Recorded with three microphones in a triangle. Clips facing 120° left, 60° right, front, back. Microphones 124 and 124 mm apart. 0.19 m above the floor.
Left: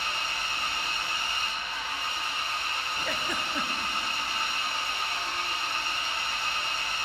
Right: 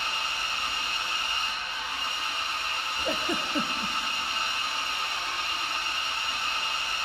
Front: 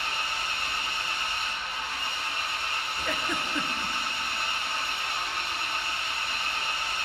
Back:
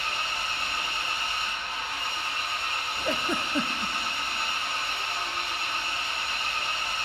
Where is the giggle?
125° right, 0.8 m.